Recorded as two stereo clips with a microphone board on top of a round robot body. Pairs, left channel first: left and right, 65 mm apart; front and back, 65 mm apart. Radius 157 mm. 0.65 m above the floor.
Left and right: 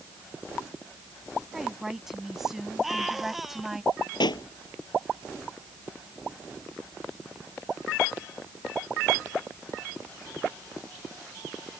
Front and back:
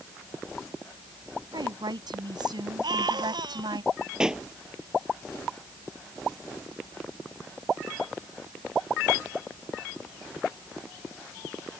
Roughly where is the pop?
Left.